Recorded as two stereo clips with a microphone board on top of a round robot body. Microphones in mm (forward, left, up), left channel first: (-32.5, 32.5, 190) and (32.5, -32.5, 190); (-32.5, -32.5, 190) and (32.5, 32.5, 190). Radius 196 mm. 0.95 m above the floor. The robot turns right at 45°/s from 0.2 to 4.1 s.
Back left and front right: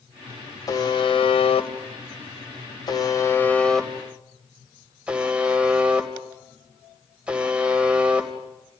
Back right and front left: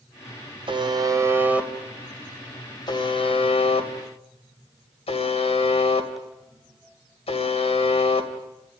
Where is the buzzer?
80° left, 2.5 m; by 8.8 s 125° right, 2.5 m.